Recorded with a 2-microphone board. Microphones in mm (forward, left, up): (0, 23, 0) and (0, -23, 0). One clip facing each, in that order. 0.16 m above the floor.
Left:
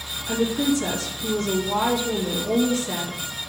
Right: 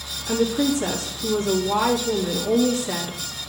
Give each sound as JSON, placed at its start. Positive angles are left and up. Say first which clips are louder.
{"t": 0.3, "sound": "a woman speaking", "louder": "right 1 dB", "side_deg": -15, "distance_m": 3.0}